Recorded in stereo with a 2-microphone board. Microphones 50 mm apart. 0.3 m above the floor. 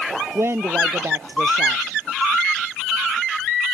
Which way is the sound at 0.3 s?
60° right (ahead or behind).